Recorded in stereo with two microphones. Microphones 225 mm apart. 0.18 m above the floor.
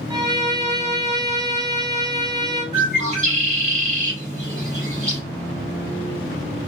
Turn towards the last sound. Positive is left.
turn(degrees=-35)  # may be behind; listen again after turning